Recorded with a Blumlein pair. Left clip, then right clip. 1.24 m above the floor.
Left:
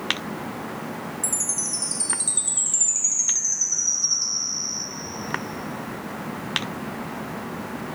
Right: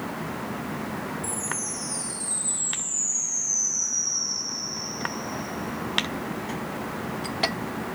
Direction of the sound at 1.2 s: 50° left.